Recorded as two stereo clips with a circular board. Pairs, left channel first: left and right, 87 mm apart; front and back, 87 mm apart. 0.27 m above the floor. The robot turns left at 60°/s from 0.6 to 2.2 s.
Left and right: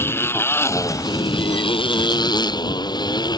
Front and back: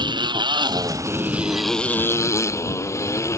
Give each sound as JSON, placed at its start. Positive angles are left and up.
{"t": 0.0, "sound": "a motorcycle", "azimuth_deg": 150}